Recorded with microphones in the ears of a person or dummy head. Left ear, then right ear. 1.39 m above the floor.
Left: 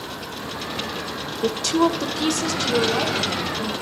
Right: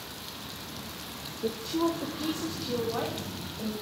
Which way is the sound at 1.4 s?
65° left (ahead or behind).